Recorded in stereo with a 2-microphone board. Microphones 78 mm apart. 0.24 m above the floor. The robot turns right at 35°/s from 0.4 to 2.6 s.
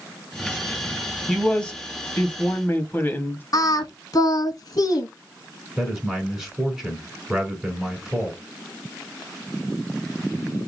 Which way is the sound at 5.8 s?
5° right (ahead or behind).